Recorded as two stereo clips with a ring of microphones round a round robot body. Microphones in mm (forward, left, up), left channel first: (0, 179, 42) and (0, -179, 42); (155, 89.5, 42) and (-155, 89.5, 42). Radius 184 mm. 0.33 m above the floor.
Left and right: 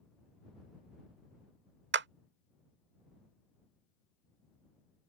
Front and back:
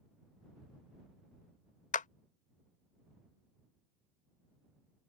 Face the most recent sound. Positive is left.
turn(degrees=-50)